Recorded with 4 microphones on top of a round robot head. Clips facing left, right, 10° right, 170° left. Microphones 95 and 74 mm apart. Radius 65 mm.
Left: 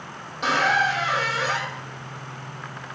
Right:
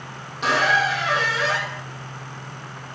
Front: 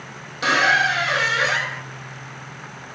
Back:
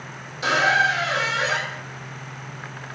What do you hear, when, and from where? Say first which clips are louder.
0.4 s a squeak: right 1 dB, front 1 dB; straight ahead, 1.2 m